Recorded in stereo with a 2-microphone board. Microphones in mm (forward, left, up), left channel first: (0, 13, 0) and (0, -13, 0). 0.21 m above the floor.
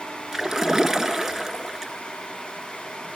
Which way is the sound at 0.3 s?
10° right (ahead or behind).